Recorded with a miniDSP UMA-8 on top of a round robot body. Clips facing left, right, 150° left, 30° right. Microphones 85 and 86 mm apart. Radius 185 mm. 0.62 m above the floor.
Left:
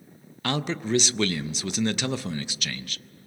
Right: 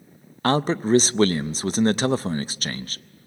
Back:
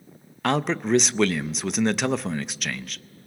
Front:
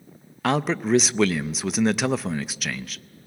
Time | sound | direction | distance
0.4 | a man speaking | 115° right | 0.7 m